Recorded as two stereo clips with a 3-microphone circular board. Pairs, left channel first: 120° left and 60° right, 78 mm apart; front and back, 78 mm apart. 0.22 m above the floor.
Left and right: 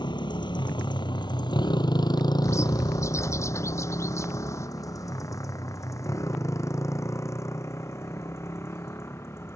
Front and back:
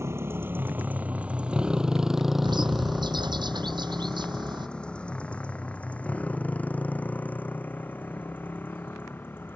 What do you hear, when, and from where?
0.0 s a motorcycle: 130° left; by 9.6 s 65° left
2.4 s a bird: 170° left